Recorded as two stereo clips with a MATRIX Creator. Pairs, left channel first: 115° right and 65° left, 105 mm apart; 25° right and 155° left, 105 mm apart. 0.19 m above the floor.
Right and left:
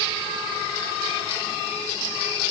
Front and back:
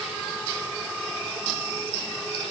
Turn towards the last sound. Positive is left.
No sound to turn to.